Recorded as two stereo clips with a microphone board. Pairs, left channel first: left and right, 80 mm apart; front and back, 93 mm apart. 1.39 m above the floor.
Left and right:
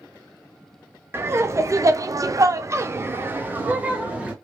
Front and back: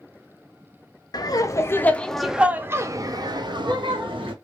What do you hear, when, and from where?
1.1 s laughter: 35° right, 0.8 m; by 4.3 s 165° right, 1.2 m